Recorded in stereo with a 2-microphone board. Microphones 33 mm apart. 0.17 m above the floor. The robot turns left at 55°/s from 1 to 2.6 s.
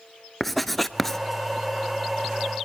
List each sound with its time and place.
0.4 s writing: 5° left (ahead or behind), 1.1 m; by 1.2 s 15° left (ahead or behind), 1.1 m